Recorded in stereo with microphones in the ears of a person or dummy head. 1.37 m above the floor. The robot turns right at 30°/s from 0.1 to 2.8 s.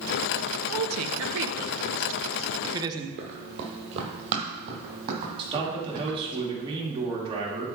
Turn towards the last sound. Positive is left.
turn(degrees=-30)  # may be behind; listen again after turning